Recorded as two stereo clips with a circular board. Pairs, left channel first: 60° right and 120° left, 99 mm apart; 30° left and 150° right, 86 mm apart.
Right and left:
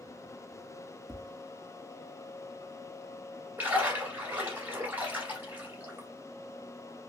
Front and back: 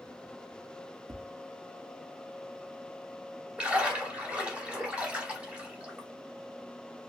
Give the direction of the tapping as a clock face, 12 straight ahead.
5 o'clock.